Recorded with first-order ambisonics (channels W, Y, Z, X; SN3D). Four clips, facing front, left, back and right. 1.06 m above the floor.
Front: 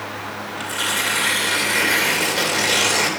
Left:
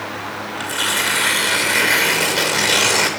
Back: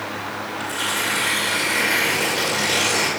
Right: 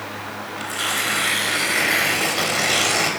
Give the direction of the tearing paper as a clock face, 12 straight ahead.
9 o'clock.